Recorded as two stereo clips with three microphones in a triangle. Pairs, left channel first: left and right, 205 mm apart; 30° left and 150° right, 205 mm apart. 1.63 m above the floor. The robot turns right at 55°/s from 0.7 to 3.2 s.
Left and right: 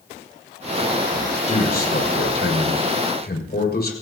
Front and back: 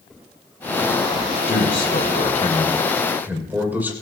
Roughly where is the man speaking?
Ahead.